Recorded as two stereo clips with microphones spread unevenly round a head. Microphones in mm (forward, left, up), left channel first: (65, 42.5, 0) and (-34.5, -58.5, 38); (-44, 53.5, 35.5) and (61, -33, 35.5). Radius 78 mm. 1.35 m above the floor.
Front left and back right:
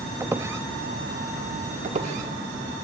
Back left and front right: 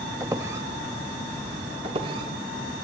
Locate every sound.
0.2 s a squeak: 105° right, 0.8 m
1.8 s a squeak: 95° right, 2.5 m